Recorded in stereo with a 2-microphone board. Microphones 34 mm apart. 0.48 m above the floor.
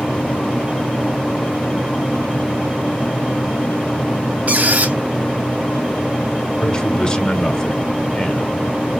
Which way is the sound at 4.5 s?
50° right (ahead or behind).